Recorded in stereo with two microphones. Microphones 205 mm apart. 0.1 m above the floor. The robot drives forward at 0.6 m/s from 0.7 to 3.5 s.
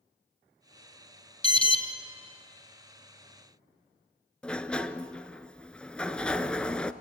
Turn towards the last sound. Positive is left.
turn(degrees=5)  # may be behind; listen again after turning